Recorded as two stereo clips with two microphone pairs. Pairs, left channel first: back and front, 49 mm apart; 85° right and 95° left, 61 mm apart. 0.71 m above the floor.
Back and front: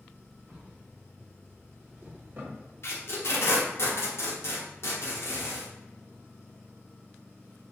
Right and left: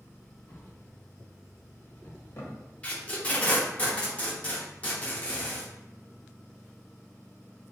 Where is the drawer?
50° right, 1.0 m.